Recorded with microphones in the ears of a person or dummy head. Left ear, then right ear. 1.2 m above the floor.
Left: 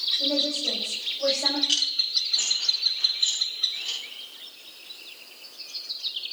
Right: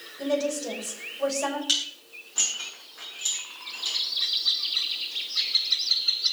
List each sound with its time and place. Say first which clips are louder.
0.2 s a woman speaking: left 3 dB; 85° right, 5.5 m
1.7 s dishes clattering: left 4 dB; 60° right (ahead or behind), 8 m